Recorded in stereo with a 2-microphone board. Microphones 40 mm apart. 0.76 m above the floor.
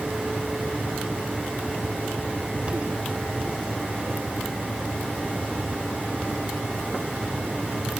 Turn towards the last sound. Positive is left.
No sound to turn to.